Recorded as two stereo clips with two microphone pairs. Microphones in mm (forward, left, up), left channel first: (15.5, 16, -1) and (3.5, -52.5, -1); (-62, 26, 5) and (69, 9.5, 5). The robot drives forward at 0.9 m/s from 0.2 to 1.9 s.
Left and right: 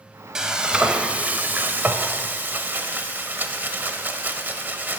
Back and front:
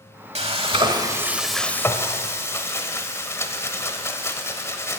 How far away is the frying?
About 1.3 m.